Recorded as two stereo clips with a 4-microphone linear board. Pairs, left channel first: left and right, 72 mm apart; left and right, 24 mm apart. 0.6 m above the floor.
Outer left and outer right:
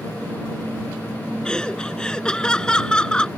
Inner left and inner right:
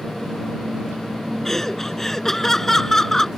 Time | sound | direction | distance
1.4 | laughter | 15° left (ahead or behind) | ?